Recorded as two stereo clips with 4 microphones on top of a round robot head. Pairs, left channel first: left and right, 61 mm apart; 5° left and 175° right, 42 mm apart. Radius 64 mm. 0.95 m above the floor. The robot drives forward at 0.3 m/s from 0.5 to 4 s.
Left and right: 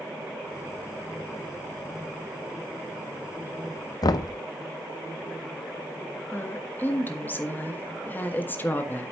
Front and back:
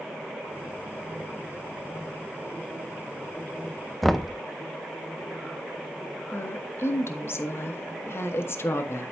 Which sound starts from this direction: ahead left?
A woman speaking, at 6.3 s.